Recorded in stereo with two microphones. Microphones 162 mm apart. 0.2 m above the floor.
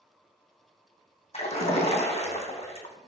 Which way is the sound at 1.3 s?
45° left (ahead or behind).